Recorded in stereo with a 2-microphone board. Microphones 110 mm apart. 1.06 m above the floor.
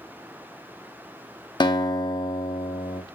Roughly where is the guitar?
Left.